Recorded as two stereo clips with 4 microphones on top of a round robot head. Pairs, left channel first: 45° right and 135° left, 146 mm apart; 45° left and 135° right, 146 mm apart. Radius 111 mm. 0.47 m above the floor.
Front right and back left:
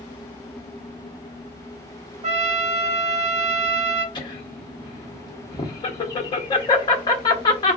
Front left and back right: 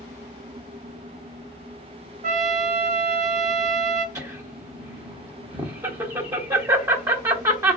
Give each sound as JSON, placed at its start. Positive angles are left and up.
{"t": 2.2, "sound": "a trumpet", "azimuth_deg": 180, "distance_m": 1.1}
{"t": 4.2, "sound": "laughter", "azimuth_deg": -80, "distance_m": 1.0}